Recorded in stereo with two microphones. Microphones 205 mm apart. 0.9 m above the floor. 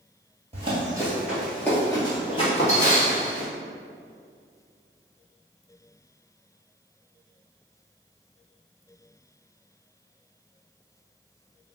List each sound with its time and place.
0.5 s running footsteps: 30° right (ahead or behind), 1.2 m; by 3.5 s 45° left (ahead or behind), 2 m